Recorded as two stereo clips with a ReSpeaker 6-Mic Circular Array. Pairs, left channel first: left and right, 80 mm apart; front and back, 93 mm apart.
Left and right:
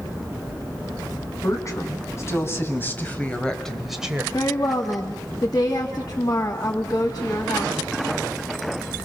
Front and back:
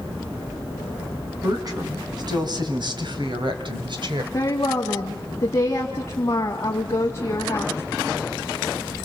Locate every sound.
1.4 s a woman speaking: 135° left, 4 m; by 4.2 s 160° right, 1.8 m
4.3 s a woman speaking: 60° left, 2.5 m